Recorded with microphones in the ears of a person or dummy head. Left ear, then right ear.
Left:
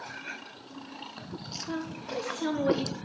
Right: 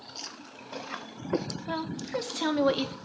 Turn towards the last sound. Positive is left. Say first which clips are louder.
# right 5 dB
turn(degrees=-30)  # may be behind; listen again after turning